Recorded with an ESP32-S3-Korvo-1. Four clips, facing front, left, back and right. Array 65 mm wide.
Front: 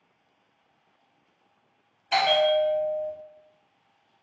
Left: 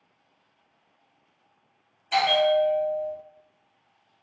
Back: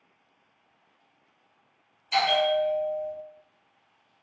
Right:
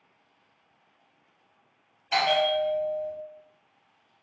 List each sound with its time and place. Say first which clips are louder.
2.1 s a bell: left 3 dB, front 2 dB; 10° right, 0.9 m